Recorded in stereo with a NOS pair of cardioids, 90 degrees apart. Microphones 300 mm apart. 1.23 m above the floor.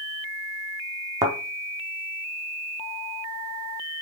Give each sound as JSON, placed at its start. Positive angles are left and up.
{"t": 1.2, "sound": "a thud", "azimuth_deg": -10, "distance_m": 4.0}